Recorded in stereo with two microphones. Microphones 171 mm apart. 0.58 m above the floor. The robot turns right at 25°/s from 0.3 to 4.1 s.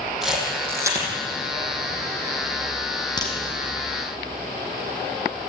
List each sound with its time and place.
0.2 s a camera shutter: 5° right (ahead or behind), 6.5 m; by 1.1 s 25° right (ahead or behind), 6.5 m
3.2 s a crack: 25° left (ahead or behind), 5.5 m; by 3.3 s 20° left (ahead or behind), 5.5 m